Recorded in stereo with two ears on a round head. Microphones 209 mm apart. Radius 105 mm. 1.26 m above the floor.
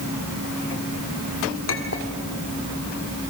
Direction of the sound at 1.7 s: 60° left (ahead or behind).